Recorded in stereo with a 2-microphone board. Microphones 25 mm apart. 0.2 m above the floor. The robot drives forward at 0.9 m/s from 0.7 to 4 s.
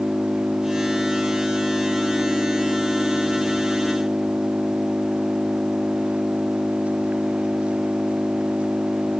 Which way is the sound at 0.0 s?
55° right (ahead or behind).